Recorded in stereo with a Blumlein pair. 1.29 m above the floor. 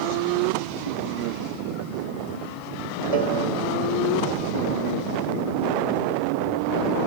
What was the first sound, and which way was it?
A cowbell, 70° right.